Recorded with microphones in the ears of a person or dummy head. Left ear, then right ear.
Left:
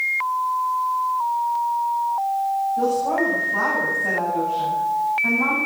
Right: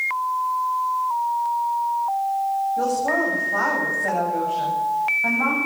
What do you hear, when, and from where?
2.8 s a woman speaking: 30° right (ahead or behind), 10 m